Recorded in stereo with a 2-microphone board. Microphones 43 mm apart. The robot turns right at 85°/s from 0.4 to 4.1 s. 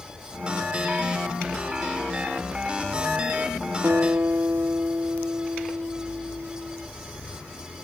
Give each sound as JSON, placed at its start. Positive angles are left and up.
{"t": 3.8, "sound": "a guitar", "side_deg": -60, "distance_m": 0.8}